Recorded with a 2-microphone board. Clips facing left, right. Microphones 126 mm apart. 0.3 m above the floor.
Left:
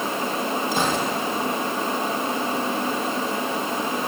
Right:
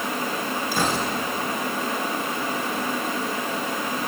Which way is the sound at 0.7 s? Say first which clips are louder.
Even; 20° left (ahead or behind).